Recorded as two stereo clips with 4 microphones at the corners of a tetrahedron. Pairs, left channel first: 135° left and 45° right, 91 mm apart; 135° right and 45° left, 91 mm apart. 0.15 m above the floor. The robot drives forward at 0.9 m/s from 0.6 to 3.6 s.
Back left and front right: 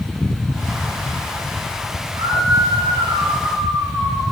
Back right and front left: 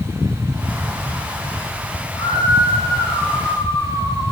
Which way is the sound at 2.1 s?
85° right.